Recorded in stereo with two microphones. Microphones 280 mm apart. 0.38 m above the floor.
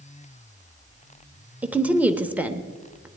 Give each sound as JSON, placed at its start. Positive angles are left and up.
{"t": 1.6, "sound": "a woman speaking", "side_deg": -5, "distance_m": 0.9}